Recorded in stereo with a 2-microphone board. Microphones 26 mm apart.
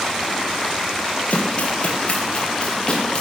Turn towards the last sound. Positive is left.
turn(degrees=35)  # may be behind; listen again after turning